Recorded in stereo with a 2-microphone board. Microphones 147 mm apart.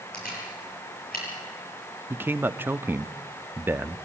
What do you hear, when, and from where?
0.1 s a camera shutter: 90° left, 8 m
2.1 s a man speaking: 15° right (ahead or behind), 0.6 m